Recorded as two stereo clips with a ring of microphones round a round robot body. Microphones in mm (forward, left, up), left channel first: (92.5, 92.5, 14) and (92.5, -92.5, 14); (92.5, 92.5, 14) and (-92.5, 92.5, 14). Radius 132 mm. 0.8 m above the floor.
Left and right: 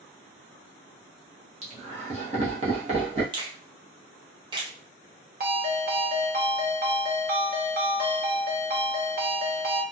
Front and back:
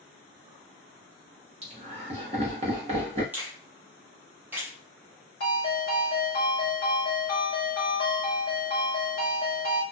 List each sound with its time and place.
1.6 s laughter: 130° right, 1.0 m
3.3 s a finger snap: 110° right, 0.6 m
5.4 s a ringtone: 55° right, 1.1 m